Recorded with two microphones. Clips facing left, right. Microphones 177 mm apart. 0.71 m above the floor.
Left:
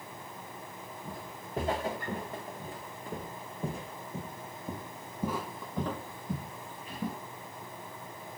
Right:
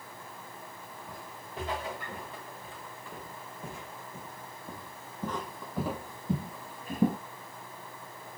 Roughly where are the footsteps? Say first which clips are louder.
Left 3 dB; left.